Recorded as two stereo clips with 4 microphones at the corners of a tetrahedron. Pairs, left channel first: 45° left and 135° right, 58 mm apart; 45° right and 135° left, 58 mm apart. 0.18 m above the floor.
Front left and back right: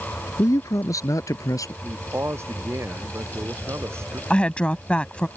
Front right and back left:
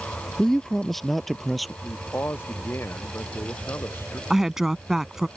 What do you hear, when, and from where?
0.4 s a man speaking: 40° left; by 1.7 s 45° left
1.8 s a man speaking: 90° right
4.3 s a woman speaking: 70° left